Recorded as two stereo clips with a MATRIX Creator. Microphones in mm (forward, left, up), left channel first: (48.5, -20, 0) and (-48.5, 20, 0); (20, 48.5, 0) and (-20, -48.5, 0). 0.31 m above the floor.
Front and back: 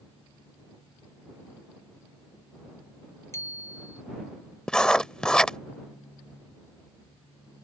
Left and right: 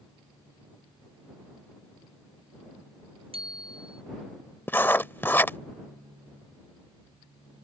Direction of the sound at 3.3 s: 85° right.